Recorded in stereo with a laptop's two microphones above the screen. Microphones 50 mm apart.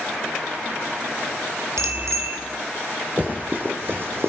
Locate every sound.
1.8 s a bicycle bell: 90° right, 3 m
3.2 s running footsteps: 35° right (ahead or behind), 4 m; by 4.3 s 60° right (ahead or behind), 3 m